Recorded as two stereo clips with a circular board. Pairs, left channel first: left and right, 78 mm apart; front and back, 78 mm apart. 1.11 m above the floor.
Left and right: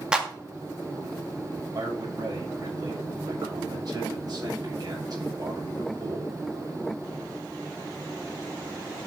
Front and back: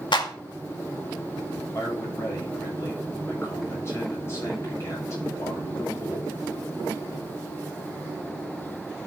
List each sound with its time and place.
0.1 s a clap: 10° right, 1.8 m
1.7 s a man speaking: 55° right, 7 m